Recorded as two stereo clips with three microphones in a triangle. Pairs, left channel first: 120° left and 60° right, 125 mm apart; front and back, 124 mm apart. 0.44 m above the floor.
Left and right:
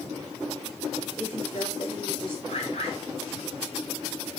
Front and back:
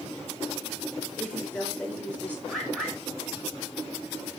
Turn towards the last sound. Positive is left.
turn(degrees=90)